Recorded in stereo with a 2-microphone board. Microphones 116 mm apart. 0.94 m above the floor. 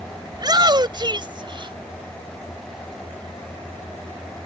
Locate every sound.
0.3 s a shout: 35° right (ahead or behind); by 1.8 s 45° right (ahead or behind)